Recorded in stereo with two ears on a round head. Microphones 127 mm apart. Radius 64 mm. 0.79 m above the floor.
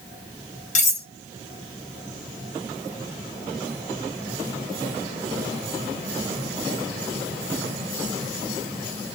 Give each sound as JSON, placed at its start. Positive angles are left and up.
{"t": 0.8, "sound": "cutlery clinking", "side_deg": 55, "distance_m": 0.8}